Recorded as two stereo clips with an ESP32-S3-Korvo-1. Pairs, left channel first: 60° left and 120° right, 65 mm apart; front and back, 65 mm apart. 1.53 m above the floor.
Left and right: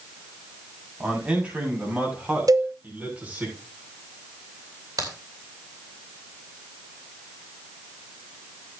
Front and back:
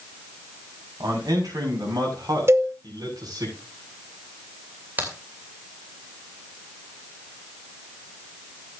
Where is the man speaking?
165° left, 5.5 m; by 3.5 s 170° left, 7 m.